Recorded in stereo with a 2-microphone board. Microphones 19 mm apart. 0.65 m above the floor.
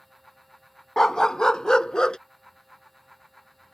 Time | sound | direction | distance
1.0 | a dog barking | 35° left (ahead or behind) | ?